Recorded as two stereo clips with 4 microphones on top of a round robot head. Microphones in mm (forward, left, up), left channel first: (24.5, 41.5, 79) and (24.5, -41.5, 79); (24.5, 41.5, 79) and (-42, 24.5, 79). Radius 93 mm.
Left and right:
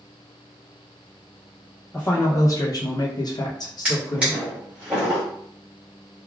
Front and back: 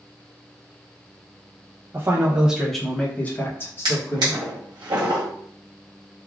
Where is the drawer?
165° right, 1.0 m.